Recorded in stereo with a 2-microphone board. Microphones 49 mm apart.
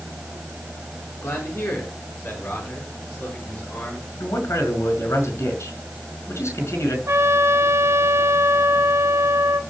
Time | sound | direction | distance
1.2 | a man speaking | 55° left (ahead or behind) | 6 m
4.2 | a man speaking | 75° left (ahead or behind) | 5 m
7.1 | a trumpet | 65° right (ahead or behind) | 1.5 m